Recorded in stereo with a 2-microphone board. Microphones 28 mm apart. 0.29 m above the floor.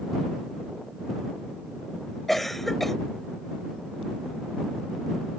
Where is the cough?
10° left (ahead or behind).